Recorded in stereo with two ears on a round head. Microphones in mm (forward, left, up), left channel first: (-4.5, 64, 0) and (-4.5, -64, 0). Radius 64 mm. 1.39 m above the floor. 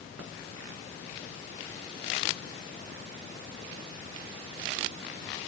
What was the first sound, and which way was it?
Only background noise.